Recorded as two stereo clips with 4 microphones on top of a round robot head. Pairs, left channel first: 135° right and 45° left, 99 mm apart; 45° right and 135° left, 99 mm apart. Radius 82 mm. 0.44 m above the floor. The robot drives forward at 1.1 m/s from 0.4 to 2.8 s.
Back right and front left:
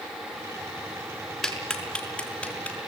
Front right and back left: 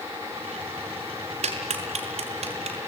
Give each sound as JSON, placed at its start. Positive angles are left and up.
{"t": 1.4, "sound": "a clap", "azimuth_deg": 135, "distance_m": 4.5}